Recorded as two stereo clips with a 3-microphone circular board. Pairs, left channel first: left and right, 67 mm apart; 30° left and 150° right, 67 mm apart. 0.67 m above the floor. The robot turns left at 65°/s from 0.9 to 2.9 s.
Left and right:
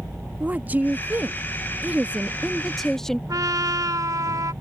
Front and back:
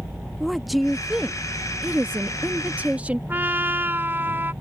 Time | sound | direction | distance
0.4 | a woman speaking | 60° right | ?
3.3 | a trumpet | 95° right | ?